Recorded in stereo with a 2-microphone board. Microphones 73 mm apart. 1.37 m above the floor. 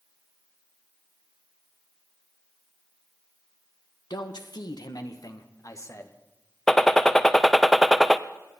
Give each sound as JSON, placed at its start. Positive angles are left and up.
{"t": 4.1, "sound": "a man speaking", "side_deg": 75, "distance_m": 1.3}
{"t": 6.7, "sound": "a gunshot", "side_deg": 5, "distance_m": 0.5}